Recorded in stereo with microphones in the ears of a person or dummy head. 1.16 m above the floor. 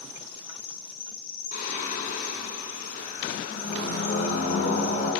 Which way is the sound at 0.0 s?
35° left (ahead or behind).